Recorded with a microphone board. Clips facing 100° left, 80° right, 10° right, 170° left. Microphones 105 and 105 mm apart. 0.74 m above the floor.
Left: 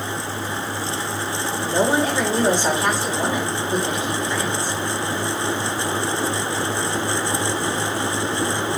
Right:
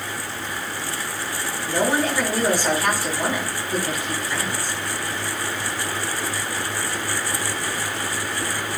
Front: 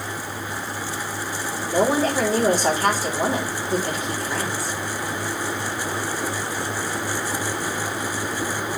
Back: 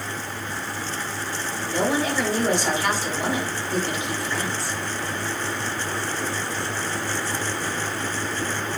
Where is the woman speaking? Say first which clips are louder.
Left 2 dB, front 4 dB; 35° left, 3 m.